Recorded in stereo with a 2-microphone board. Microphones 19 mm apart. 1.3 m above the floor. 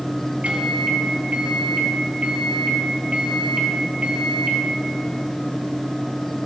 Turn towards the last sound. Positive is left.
turn(degrees=-85)